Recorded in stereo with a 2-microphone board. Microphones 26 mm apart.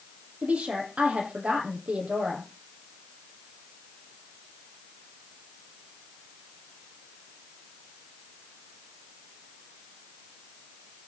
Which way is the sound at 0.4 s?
75° right (ahead or behind).